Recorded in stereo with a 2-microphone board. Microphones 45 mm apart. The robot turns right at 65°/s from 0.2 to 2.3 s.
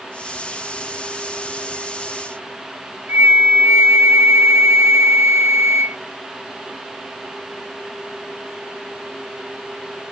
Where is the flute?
60° right (ahead or behind).